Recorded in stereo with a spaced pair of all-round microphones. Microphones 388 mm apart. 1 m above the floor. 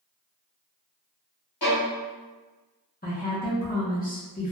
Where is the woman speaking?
25° left (ahead or behind), 0.7 m.